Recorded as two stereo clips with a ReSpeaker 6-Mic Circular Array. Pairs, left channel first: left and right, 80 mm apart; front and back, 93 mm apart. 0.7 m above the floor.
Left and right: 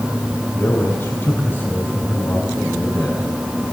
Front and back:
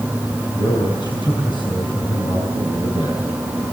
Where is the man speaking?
25° left, 6.5 m.